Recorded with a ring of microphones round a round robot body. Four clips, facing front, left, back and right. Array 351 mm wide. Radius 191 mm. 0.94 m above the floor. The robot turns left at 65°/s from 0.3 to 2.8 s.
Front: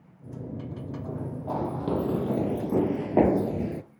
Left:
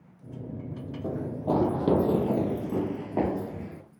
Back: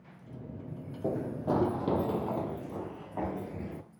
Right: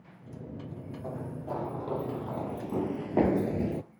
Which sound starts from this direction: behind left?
Running footsteps, at 1.0 s.